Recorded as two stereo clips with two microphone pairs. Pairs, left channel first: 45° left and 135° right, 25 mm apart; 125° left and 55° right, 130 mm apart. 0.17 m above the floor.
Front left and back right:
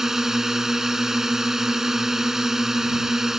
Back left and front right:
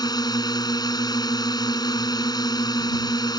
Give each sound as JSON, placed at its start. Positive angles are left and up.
{"t": 0.0, "sound": "a drone", "azimuth_deg": 165}